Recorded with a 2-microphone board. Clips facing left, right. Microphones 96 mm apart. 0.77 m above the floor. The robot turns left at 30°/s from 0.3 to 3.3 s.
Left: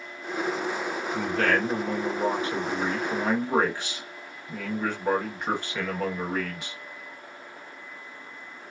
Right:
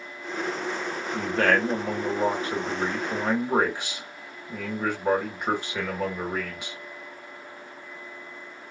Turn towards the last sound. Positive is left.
turn(degrees=-160)